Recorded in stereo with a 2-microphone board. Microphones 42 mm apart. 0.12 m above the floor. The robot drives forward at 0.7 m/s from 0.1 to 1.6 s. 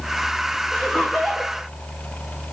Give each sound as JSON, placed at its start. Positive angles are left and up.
{"t": 0.7, "sound": "laughter", "side_deg": 20, "distance_m": 8.0}